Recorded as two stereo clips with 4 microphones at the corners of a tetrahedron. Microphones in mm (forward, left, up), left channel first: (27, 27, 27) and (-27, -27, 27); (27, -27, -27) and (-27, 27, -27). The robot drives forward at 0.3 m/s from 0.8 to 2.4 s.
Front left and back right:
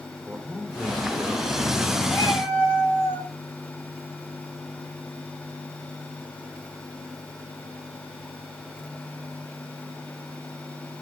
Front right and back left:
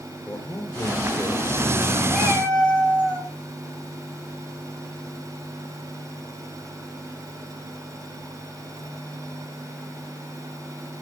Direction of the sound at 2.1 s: 30° left.